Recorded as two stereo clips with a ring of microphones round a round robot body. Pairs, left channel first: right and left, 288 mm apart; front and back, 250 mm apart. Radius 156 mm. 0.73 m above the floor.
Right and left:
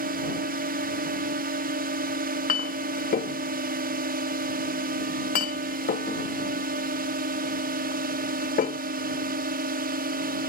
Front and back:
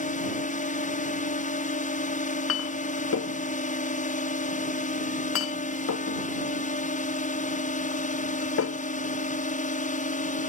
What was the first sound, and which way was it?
A drone, 45° left.